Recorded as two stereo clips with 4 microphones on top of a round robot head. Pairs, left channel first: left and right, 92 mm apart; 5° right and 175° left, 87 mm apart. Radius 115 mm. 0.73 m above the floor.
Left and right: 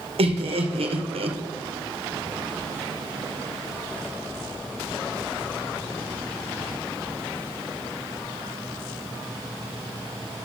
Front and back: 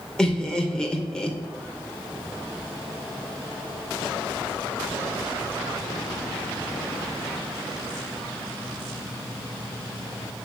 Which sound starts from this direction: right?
Laughter, at 0.2 s.